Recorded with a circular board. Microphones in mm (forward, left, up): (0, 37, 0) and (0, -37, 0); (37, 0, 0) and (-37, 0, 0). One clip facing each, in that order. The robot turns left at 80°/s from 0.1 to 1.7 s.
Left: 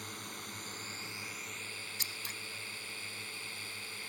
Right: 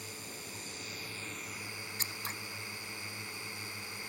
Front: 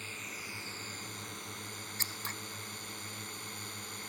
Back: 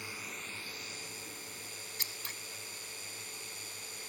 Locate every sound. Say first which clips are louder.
0.0 s a drone: left 1 dB, even; 110° left; by 4.1 s 20° right
2.0 s scissors: right 6 dB, front 4 dB; 50° right